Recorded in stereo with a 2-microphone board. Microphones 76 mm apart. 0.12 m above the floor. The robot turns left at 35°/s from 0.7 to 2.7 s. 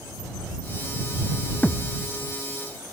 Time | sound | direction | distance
1.6 | a thud | 25° left (ahead or behind) | ?